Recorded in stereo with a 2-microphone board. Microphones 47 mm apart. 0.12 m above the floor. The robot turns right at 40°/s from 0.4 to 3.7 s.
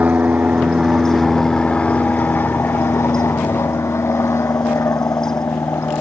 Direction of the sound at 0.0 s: 35° right.